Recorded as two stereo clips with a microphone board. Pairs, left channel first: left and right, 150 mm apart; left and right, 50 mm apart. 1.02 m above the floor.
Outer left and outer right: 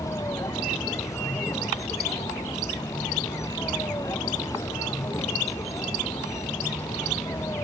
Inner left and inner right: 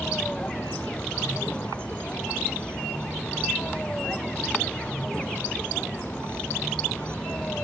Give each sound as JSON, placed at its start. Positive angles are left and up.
{"t": 0.0, "sound": "a vehicle", "side_deg": 20}